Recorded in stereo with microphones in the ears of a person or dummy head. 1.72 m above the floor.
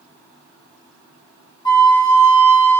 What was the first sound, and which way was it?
A flute, 25° left (ahead or behind).